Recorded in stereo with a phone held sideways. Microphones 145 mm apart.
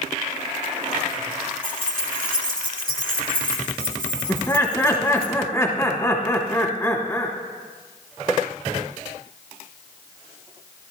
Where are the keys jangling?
70° right (ahead or behind), 1.9 m.